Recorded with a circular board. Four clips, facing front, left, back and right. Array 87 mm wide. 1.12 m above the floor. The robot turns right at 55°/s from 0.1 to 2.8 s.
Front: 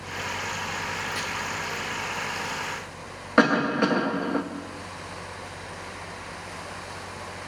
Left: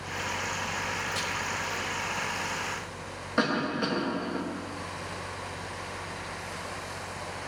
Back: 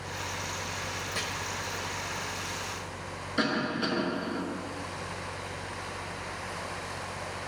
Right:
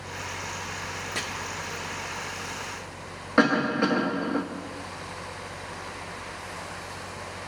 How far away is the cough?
About 1.4 m.